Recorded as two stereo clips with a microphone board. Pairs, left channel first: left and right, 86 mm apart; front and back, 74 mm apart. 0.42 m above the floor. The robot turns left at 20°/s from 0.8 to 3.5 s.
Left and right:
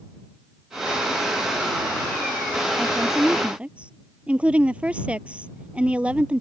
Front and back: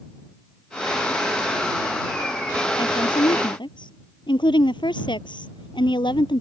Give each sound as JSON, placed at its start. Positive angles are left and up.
{"t": 2.8, "sound": "a woman speaking", "azimuth_deg": 0}